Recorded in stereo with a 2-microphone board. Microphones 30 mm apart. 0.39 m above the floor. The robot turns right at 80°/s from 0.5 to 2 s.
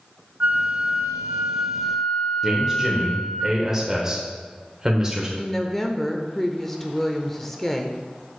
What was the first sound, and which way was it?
A flute, 95° right.